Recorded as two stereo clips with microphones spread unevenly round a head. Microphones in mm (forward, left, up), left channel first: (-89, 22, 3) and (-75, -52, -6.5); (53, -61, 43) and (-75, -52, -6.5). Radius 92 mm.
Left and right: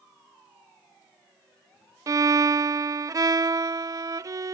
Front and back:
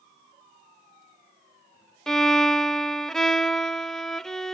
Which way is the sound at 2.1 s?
105° right.